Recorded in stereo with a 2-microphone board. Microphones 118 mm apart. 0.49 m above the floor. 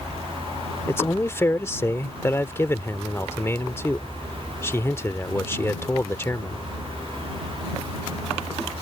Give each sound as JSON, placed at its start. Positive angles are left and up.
{"t": 0.9, "sound": "a man speaking", "side_deg": 20}